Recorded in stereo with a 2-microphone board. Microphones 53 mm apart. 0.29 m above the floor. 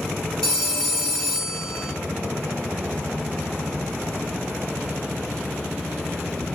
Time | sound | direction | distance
0.4 | a phone ringing | 15° left (ahead or behind) | 4 m